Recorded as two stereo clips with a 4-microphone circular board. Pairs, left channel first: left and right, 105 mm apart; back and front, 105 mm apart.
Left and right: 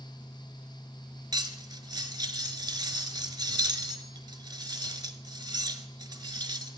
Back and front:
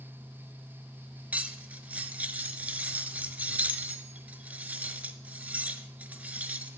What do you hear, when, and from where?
1.3 s cutlery clinking: 70° right, 1.0 m